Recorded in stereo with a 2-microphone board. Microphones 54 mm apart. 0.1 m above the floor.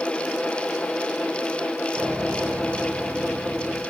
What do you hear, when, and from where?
1.9 s a piano: 50° right (ahead or behind), 9 m